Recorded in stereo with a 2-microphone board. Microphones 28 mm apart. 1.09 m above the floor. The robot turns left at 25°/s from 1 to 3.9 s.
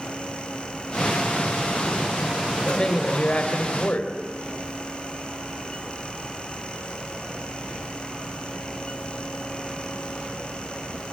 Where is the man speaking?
155° left, 4 m; by 4.1 s 125° left, 4 m.